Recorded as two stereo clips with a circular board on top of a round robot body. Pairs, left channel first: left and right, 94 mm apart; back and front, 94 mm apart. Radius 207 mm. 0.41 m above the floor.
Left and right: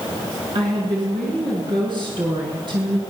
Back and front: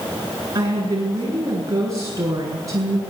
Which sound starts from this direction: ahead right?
A woman speaking, at 0.6 s.